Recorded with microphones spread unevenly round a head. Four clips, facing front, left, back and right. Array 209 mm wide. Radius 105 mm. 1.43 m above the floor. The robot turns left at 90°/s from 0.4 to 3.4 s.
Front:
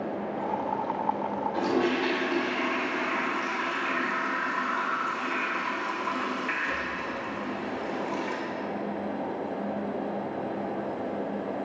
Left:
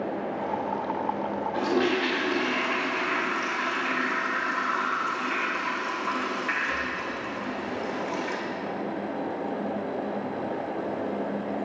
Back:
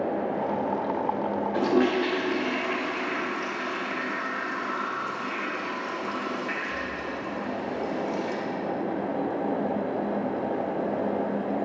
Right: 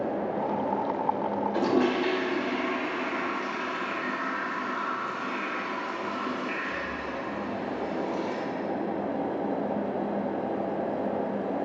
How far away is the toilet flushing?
About 0.9 m.